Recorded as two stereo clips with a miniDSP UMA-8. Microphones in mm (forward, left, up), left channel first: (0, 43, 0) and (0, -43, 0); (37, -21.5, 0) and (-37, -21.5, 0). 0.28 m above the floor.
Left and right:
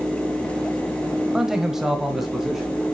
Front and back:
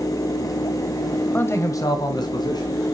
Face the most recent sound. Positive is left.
turn(degrees=-5)